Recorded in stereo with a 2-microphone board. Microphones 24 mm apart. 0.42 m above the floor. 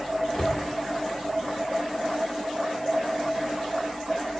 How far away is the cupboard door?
About 0.5 m.